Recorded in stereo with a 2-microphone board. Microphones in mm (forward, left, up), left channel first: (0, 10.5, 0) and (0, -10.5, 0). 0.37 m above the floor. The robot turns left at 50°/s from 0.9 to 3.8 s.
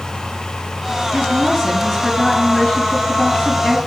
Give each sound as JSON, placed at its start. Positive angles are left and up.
{"t": 1.1, "sound": "a woman speaking", "azimuth_deg": -145, "distance_m": 3.5}